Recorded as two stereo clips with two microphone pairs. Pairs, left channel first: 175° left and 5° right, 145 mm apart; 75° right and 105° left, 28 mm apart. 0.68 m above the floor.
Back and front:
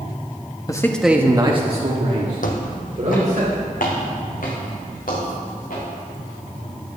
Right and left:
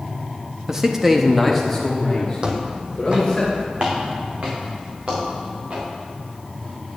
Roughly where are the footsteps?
Behind.